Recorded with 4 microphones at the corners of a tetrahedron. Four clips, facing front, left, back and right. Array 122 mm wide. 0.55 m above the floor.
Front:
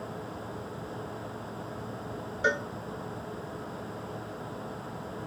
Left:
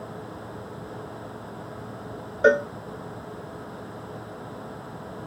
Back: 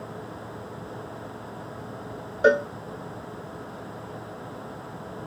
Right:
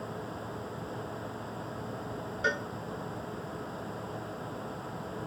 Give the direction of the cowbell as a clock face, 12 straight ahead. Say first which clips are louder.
Left 14 dB, back 9 dB; 8 o'clock.